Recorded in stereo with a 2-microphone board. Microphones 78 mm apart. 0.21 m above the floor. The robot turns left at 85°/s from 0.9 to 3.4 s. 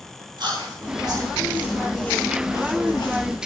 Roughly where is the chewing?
Right.